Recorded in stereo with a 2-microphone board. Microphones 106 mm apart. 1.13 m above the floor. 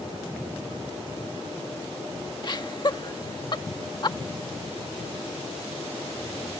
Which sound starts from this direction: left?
Laughter, at 2.4 s.